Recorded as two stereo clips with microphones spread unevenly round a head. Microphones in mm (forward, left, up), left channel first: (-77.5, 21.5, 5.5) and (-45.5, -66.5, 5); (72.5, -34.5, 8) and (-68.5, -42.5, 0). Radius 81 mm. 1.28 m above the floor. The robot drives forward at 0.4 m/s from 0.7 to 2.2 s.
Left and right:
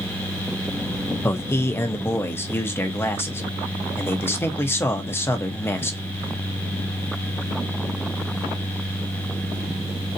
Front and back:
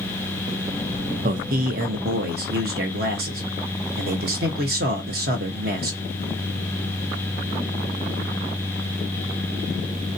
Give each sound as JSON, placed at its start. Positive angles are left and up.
{"t": 1.2, "sound": "a man speaking", "azimuth_deg": 170, "distance_m": 0.6}